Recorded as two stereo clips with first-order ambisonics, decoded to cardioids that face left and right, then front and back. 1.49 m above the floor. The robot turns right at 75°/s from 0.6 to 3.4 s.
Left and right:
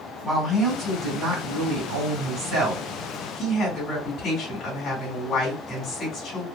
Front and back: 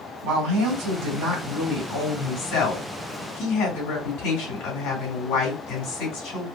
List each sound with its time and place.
0.2 s a woman speaking: straight behind, 2.5 m; by 6.5 s 30° left, 2.5 m